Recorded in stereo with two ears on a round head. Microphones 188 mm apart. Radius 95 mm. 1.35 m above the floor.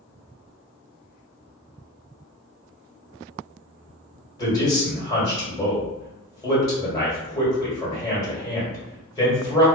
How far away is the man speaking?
About 1.5 m.